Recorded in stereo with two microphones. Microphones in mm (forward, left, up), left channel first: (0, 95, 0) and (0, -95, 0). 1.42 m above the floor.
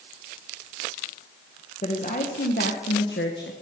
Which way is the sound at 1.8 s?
40° left (ahead or behind).